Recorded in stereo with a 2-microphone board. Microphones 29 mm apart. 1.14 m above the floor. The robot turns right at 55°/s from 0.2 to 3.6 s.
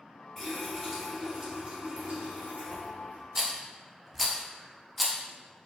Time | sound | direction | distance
0.4 | a running tap | 155° left | 1.4 m
3.4 | a rattle | 10° right (ahead or behind) | 0.7 m